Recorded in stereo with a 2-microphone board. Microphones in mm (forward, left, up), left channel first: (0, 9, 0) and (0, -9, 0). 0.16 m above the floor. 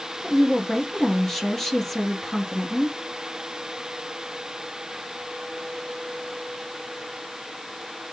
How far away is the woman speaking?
About 2.5 m.